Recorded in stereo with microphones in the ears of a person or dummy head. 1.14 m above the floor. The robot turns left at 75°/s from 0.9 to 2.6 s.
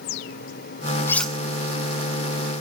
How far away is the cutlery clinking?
About 0.6 m.